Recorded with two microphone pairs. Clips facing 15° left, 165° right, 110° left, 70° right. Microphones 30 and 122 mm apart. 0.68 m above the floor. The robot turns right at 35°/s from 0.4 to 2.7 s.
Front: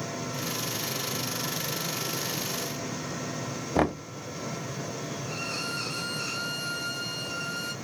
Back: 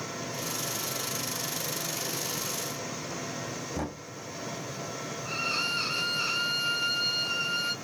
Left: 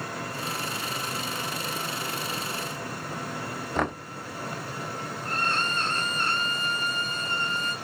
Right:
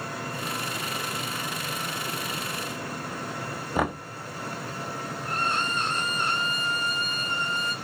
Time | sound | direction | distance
3.8 | knocking | 10° left | 0.7 m
5.2 | a violin | 135° right | 1.0 m